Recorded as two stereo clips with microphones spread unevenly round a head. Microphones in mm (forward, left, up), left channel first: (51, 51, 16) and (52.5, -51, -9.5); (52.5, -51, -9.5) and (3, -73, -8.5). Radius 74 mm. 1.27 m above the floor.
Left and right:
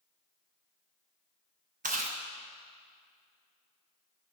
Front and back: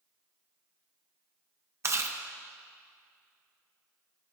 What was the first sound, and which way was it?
Chewing, 125° right.